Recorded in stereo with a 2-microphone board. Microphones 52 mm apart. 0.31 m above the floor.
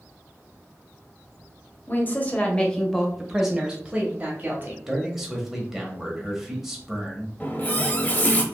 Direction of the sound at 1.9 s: 35° left (ahead or behind).